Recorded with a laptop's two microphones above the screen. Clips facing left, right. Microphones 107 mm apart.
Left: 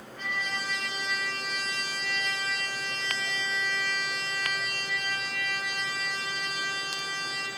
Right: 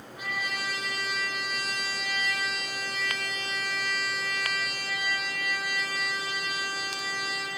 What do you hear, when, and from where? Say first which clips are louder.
0.2 s a trumpet: even; 10° right (ahead or behind), 3 m